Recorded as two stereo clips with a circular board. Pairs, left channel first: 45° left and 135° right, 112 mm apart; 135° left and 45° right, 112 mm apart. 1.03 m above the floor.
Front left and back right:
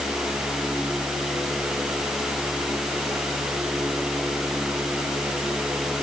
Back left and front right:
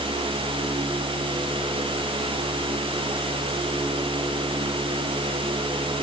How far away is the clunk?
No clunk in this recording.